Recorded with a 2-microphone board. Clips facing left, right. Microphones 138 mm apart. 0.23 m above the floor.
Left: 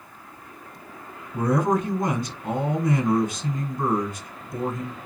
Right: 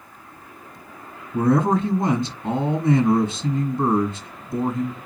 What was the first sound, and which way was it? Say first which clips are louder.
A man speaking: right 3 dB; 25° right (ahead or behind).